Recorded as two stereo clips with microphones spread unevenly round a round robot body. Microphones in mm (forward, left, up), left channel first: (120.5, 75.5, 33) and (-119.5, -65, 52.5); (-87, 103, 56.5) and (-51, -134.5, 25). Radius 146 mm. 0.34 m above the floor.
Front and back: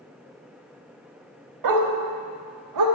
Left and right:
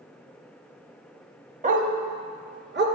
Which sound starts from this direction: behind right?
A dog barking, at 1.6 s.